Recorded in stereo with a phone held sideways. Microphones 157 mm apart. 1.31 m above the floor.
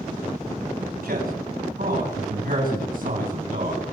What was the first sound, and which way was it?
A man speaking, 80° right.